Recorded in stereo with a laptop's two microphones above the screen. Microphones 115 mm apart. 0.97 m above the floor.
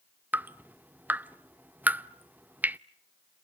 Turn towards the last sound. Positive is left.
turn(degrees=-15)  # may be behind; listen again after turning